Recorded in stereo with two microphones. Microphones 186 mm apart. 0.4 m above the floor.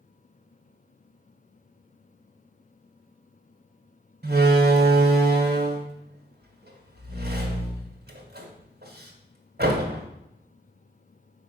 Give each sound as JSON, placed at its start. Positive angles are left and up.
{"t": 4.2, "sound": "a door slam", "side_deg": -60, "distance_m": 1.6}